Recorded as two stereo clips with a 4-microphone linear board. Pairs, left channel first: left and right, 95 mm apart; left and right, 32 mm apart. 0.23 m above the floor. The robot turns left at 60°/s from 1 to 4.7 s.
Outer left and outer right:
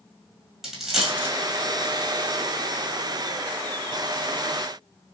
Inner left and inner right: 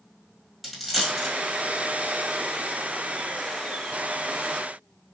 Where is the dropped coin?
5° right (ahead or behind), 1.5 m; by 1.3 s 20° right (ahead or behind), 1.5 m.